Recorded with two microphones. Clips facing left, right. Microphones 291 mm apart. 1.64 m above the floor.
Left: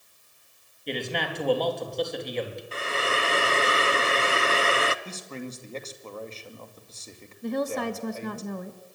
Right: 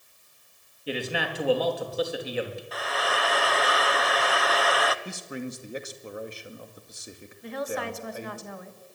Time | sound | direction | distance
0.9 | a man speaking | 5° right (ahead or behind) | 3.5 m
2.7 | frying | 30° left (ahead or behind) | 0.8 m
5.0 | a man speaking | 15° right (ahead or behind) | 2 m
7.4 | a woman speaking | 50° left (ahead or behind) | 1.9 m